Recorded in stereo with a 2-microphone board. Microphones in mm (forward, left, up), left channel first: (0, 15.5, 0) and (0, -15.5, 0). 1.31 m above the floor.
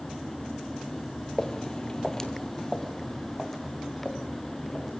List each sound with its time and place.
1.4 s footsteps: 20° left (ahead or behind), 1.5 m; by 4.9 s centre (ahead or behind), 4.5 m